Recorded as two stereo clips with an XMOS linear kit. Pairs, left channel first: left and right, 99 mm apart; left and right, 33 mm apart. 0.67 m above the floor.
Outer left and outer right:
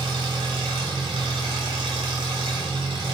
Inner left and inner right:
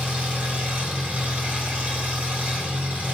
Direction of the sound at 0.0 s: 60° right (ahead or behind).